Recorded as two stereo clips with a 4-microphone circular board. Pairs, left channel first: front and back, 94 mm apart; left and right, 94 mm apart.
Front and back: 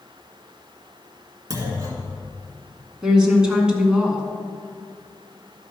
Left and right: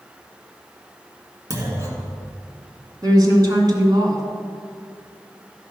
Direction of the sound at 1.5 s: 135° right.